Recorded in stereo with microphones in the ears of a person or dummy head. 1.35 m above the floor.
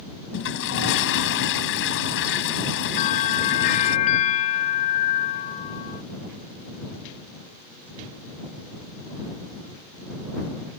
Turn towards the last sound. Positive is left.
turn(degrees=40)  # may be behind; listen again after turning